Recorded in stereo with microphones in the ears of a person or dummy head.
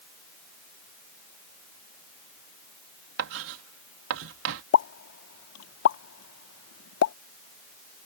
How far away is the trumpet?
No trumpet in this recording.